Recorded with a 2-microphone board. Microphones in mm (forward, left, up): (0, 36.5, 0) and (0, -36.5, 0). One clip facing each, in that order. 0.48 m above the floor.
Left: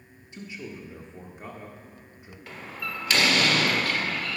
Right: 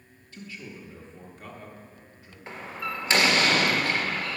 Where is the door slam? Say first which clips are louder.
Right 2 dB; 25° right (ahead or behind), 1.1 m.